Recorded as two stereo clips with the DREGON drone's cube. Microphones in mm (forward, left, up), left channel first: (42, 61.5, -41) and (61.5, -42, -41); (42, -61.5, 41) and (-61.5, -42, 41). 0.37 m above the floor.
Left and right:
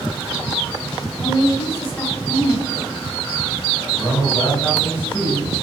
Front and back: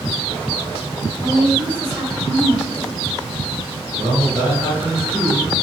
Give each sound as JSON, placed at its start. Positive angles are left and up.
{"t": 1.2, "sound": "a woman speaking", "azimuth_deg": 85, "distance_m": 1.2}
{"t": 4.0, "sound": "a man speaking", "azimuth_deg": 135, "distance_m": 1.3}